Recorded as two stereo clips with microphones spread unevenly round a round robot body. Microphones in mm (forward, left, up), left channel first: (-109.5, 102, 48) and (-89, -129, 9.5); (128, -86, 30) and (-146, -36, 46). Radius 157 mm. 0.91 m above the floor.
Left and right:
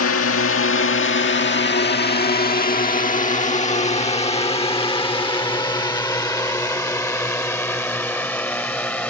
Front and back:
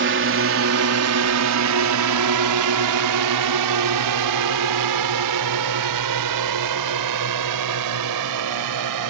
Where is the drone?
120° left; by 9.1 s straight behind.